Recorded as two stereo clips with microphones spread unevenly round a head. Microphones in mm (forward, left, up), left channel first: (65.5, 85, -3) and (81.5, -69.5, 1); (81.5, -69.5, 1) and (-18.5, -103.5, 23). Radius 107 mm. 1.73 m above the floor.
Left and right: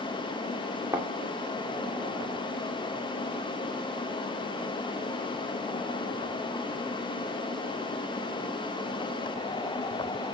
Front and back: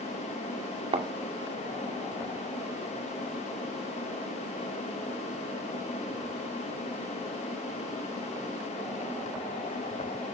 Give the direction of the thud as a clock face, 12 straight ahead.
5 o'clock.